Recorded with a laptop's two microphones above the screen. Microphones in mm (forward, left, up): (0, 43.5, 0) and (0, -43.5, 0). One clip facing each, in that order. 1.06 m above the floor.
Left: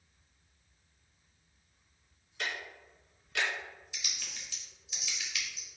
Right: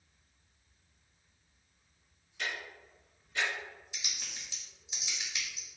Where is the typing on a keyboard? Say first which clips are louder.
Even; 20° right (ahead or behind), 0.7 m.